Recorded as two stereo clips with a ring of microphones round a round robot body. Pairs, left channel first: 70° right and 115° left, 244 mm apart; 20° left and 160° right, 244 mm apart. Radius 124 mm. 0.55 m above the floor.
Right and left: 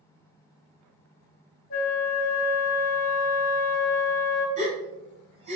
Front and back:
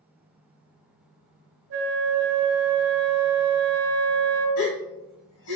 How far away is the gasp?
About 1.6 m.